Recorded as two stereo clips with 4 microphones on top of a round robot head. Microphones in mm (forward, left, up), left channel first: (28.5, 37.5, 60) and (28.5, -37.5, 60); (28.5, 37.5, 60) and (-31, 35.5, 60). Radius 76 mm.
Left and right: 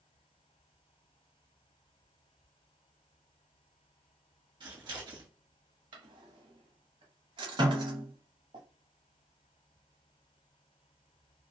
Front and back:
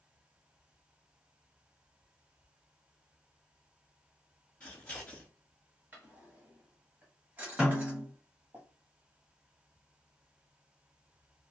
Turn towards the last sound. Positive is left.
turn(degrees=-100)